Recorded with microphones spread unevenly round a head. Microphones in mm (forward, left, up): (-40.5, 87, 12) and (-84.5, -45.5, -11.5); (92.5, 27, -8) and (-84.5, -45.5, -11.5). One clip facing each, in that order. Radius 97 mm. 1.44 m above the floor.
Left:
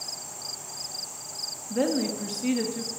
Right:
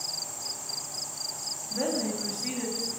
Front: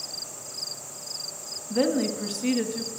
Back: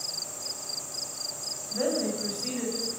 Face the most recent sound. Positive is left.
turn(degrees=45)